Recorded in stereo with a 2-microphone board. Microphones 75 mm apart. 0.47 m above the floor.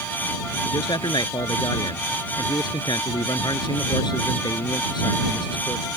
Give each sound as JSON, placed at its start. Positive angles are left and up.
{"t": 0.7, "sound": "a man speaking", "side_deg": 80}